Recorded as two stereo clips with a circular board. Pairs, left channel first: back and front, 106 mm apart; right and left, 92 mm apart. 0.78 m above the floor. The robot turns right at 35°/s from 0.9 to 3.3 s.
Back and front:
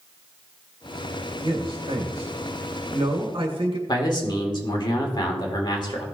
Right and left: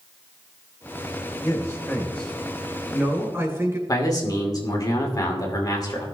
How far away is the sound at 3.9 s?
About 2 m.